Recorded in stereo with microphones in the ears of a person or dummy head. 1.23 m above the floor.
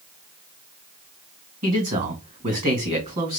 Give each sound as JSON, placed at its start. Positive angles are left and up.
{"t": 1.6, "sound": "a man speaking", "side_deg": -40, "distance_m": 1.9}